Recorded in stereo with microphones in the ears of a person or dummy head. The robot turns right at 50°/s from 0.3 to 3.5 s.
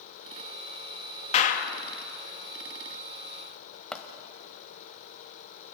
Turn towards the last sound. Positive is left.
turn(degrees=0)  # may be behind; listen again after turning